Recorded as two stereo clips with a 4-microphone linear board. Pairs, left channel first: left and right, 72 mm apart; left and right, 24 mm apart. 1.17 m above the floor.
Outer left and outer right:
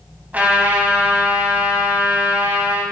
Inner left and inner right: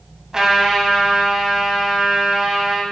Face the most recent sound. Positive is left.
turn(degrees=-20)  # may be behind; listen again after turning